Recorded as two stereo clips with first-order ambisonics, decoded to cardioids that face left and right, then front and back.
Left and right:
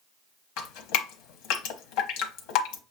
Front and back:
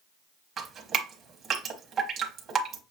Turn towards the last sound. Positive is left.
turn(degrees=115)